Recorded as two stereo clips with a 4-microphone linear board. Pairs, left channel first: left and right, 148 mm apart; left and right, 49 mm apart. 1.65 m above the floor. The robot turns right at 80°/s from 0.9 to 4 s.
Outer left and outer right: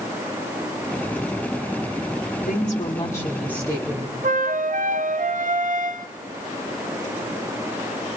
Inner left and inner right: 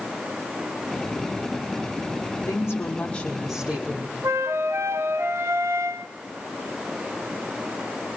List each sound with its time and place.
2.5 s a woman speaking: 105° left, 6 m; by 4.1 s 130° right, 6 m
4.2 s a flute: 60° right (ahead or behind), 0.9 m